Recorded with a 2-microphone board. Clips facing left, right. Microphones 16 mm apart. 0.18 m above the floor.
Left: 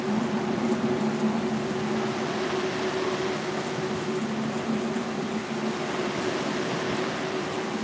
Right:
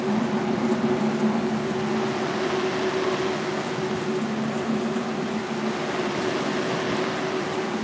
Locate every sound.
Only background noise.